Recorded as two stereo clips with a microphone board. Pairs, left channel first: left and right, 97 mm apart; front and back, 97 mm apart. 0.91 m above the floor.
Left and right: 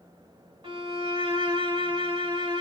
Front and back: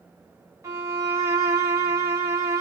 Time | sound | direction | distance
0.6 | a violin | 120° right | 3 m